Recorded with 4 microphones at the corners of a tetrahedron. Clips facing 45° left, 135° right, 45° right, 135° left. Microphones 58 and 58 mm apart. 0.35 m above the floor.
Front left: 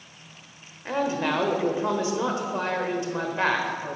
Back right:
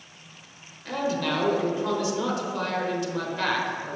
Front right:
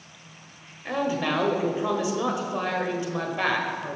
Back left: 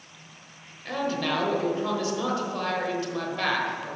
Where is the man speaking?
10° left, 1.2 m.